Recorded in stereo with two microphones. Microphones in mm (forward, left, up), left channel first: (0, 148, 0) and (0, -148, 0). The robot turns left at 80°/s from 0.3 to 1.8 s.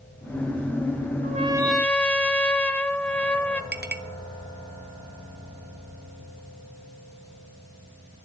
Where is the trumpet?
140° right, 0.8 m; by 3.6 s 175° left, 0.8 m.